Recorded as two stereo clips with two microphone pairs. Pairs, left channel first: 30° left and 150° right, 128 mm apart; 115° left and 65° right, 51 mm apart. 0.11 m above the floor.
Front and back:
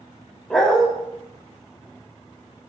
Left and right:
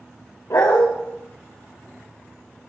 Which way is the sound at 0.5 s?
115° left.